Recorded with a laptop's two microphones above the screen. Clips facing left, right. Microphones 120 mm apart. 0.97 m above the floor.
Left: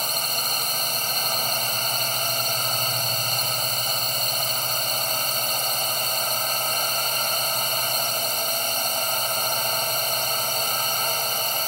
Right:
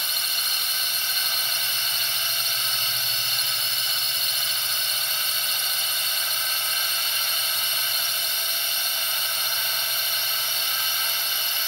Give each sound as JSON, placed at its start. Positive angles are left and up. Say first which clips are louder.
{"t": 0.0, "sound": "a drone", "louder": "left 7 dB", "side_deg": 40}